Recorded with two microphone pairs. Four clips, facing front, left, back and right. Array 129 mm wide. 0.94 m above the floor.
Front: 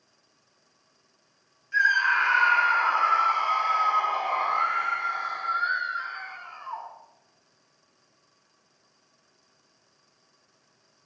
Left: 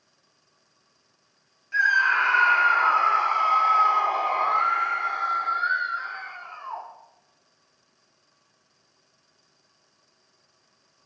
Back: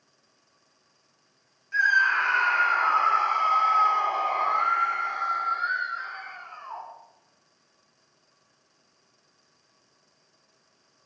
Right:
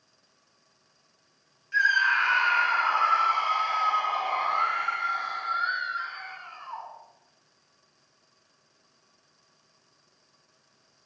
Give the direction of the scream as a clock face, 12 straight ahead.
8 o'clock.